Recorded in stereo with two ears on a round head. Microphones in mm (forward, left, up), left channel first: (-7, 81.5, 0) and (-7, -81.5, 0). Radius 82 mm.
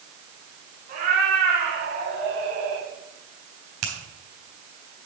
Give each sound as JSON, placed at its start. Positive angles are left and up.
{"t": 0.9, "sound": "a cat meowing", "side_deg": -45, "distance_m": 3.5}
{"t": 3.8, "sound": "a finger snap", "side_deg": -55, "distance_m": 3.5}